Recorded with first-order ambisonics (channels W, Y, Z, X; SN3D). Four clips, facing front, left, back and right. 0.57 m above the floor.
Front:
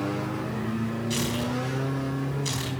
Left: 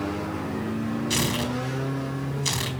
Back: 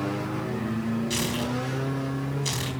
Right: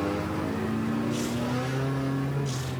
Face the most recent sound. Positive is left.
turn(degrees=100)